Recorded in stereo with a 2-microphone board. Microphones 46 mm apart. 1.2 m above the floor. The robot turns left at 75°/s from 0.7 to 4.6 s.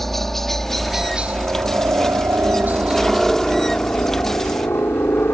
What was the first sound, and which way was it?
A helicopter, 5° left (ahead or behind).